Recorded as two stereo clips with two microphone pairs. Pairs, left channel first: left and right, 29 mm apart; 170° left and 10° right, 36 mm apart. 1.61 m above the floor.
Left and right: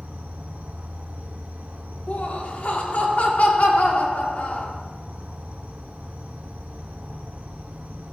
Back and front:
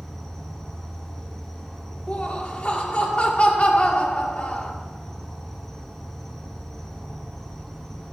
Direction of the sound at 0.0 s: 110° right.